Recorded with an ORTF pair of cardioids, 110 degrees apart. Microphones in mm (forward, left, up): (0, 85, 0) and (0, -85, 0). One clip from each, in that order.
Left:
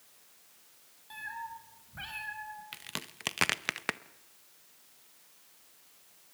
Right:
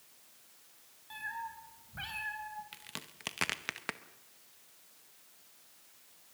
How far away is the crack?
About 0.7 m.